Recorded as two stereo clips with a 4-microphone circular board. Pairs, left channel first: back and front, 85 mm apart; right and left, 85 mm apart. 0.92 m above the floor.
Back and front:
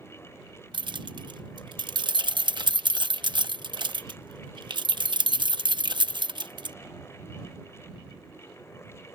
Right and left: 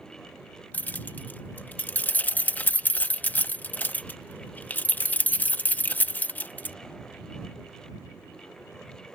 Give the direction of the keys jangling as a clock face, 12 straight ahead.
1 o'clock.